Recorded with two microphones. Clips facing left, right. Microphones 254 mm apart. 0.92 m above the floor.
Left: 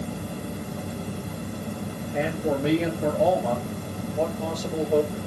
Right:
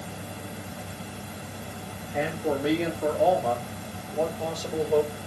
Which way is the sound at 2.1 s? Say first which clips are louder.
Left 2 dB; 25° left (ahead or behind).